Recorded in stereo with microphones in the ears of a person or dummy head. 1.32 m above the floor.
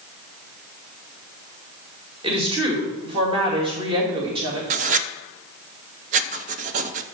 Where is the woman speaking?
30° right (ahead or behind), 2.5 m.